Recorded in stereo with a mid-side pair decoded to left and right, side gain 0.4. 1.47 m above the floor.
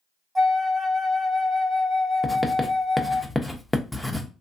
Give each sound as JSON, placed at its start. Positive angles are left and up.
{"t": 0.3, "sound": "a flute", "azimuth_deg": -20, "distance_m": 0.9}
{"t": 2.2, "sound": "writing", "azimuth_deg": 10, "distance_m": 0.8}